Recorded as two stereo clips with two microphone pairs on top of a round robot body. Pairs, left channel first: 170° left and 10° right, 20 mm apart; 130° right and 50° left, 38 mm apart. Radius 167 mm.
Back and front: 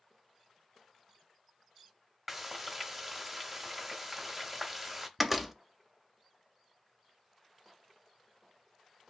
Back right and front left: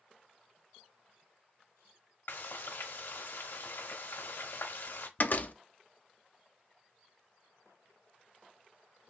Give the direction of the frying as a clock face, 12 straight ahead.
3 o'clock.